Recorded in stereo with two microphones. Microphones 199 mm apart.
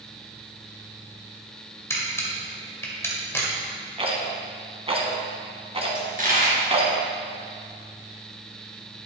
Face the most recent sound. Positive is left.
turn(degrees=-45)  # may be behind; listen again after turning